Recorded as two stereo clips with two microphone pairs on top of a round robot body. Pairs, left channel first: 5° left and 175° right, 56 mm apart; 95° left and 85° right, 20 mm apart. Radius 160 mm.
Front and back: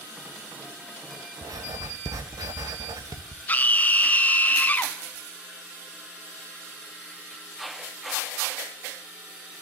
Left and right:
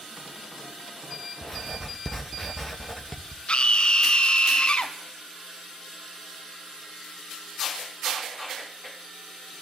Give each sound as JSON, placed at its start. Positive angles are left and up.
{"t": 1.4, "sound": "writing", "azimuth_deg": 170, "distance_m": 0.5}
{"t": 3.5, "sound": "a scream", "azimuth_deg": 60, "distance_m": 1.4}